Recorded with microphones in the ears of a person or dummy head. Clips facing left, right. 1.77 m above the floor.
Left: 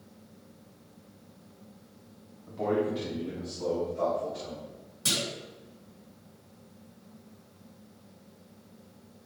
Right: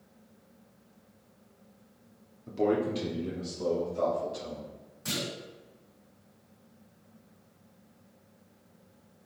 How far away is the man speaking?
About 1.2 m.